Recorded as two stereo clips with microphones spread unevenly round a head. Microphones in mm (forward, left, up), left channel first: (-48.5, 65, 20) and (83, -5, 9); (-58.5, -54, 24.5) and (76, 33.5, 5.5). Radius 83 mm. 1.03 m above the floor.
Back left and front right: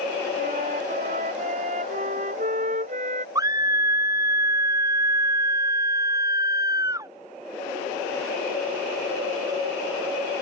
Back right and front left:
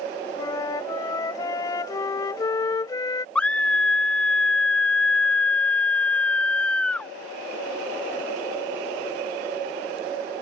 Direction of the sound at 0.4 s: 80° right.